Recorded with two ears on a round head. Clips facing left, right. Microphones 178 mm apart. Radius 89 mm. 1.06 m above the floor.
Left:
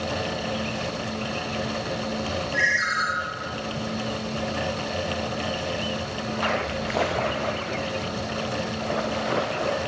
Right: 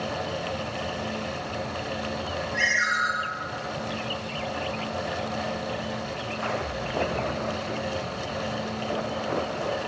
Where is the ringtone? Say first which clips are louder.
Left 2 dB; 50° left (ahead or behind), 3 m.